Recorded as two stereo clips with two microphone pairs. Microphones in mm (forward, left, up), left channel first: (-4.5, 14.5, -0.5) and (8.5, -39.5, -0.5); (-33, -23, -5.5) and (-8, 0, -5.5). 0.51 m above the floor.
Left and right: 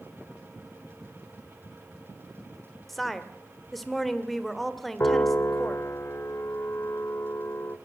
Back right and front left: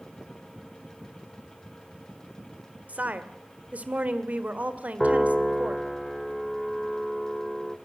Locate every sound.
2.9 s a woman speaking: 15° left, 1.8 m
5.0 s a piano: 135° left, 1.2 m